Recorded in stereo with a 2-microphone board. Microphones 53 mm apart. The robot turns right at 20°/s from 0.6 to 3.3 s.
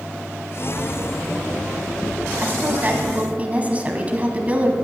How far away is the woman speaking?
About 1.6 m.